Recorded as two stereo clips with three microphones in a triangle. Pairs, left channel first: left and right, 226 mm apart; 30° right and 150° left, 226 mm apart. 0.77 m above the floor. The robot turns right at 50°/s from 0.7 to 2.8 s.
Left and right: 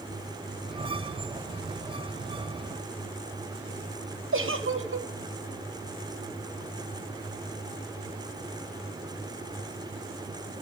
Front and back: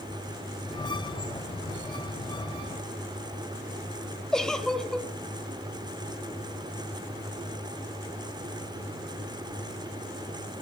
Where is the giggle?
115° right, 0.9 m.